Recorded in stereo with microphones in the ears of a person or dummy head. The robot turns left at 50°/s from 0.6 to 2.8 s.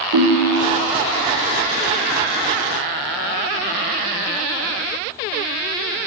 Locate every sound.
0.1 s a ringtone: 85° right, 0.8 m; by 0.9 s 75° right (ahead or behind), 0.8 m